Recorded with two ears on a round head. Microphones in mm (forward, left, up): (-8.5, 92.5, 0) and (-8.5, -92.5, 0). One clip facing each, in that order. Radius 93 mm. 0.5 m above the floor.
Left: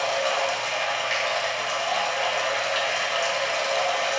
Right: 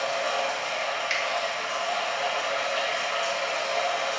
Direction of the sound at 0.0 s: 55° left (ahead or behind).